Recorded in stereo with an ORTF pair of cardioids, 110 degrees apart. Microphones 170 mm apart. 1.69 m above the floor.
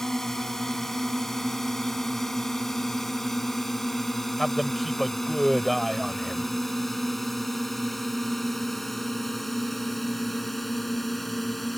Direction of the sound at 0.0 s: 5° left.